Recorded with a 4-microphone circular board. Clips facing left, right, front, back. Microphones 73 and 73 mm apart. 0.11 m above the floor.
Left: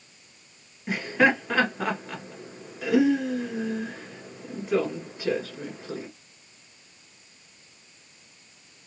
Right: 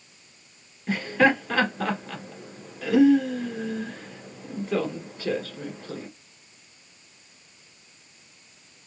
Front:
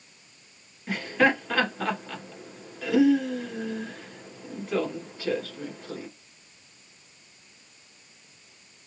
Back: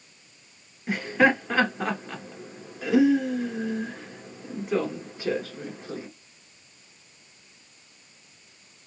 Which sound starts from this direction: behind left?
Laughter, at 0.9 s.